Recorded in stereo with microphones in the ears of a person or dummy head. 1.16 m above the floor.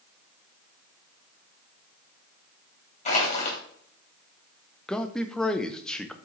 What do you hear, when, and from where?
3.0 s crushing: 35° left (ahead or behind), 3 m
4.9 s a man speaking: centre (ahead or behind), 0.7 m